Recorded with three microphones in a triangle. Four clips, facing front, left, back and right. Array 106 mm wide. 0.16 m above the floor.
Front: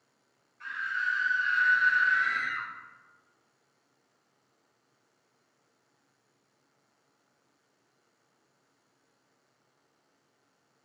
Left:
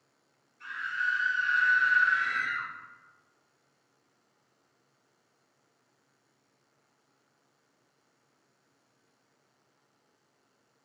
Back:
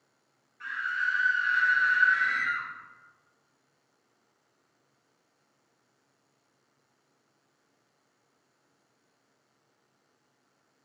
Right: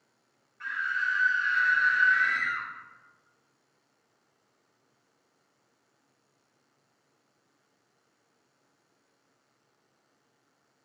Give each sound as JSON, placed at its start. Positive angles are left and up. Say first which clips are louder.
{"t": 0.6, "sound": "a scream", "louder": "right 2 dB, back 2 dB", "azimuth_deg": -125, "distance_m": 3.0}